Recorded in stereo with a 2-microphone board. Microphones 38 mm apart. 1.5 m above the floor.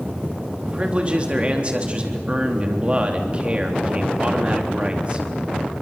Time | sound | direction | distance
0.6 | a man speaking | 30° right (ahead or behind) | 3.5 m